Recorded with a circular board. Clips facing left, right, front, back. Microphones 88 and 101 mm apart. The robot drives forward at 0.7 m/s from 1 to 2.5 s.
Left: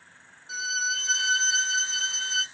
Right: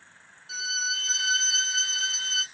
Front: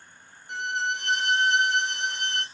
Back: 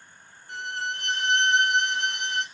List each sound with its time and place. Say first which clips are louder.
0.5 s a violin: left 3 dB, front 3 dB; 55° left, 2.0 m; by 2.5 s 115° left, 1.9 m